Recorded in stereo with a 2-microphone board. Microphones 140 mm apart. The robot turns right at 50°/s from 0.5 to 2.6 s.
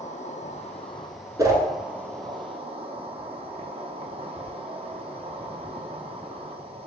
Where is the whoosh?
25° right (ahead or behind), 0.8 m; by 1.6 s 30° right (ahead or behind), 0.8 m.